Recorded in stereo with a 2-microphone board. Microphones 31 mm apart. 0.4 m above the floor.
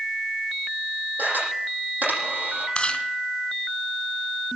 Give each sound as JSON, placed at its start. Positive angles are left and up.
{"t": 1.2, "sound": "a camera shutter", "side_deg": -70, "distance_m": 8.0}
{"t": 2.8, "sound": "chewing", "side_deg": 30, "distance_m": 3.0}